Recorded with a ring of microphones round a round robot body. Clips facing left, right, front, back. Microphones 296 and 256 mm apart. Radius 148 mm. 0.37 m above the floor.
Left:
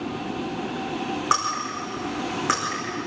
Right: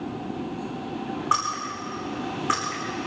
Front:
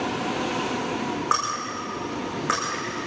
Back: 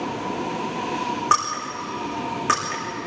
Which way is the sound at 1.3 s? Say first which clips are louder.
Left 2 dB, back 1 dB; 135° left.